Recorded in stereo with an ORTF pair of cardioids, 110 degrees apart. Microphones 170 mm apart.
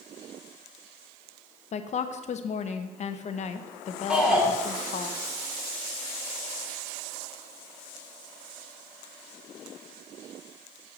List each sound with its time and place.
1.7 s a woman speaking: 45° left, 0.7 m
4.1 s a shout: 5° right, 2.5 m